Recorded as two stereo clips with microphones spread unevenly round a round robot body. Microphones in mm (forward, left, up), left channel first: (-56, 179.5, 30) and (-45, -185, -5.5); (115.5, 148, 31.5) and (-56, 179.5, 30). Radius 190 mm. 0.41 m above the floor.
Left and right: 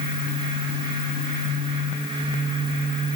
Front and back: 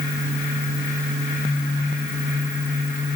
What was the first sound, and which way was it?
Only background noise.